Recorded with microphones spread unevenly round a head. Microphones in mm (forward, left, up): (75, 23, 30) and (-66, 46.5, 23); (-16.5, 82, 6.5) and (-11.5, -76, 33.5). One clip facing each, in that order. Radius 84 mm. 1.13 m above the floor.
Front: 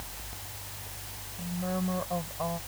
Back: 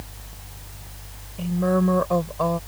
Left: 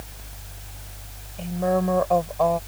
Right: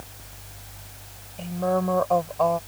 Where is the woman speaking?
175° left.